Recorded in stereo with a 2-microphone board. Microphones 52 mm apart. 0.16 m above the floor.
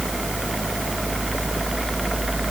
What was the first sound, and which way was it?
Only background noise.